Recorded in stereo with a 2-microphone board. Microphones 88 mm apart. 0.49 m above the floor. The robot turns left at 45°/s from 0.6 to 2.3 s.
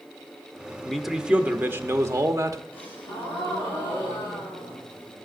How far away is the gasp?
About 6.5 m.